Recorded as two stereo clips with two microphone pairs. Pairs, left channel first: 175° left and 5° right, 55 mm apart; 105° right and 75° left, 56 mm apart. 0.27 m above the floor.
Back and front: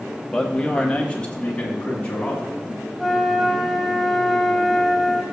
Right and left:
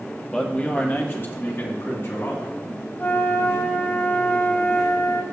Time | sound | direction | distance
0.3 | a man speaking | 145° right | 1.3 m
3.0 | a flute | 100° right | 1.1 m